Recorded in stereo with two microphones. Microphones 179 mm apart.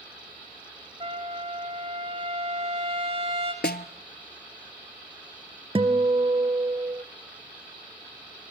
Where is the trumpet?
30° right (ahead or behind), 2.5 m.